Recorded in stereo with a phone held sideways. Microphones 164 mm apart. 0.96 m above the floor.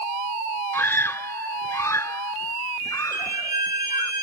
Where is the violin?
65° left (ahead or behind).